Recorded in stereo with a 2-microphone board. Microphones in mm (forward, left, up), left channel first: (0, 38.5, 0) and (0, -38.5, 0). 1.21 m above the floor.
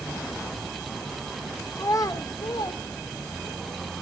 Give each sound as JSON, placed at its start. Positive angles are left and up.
{"t": 1.8, "sound": "a child speaking", "side_deg": 40, "distance_m": 0.6}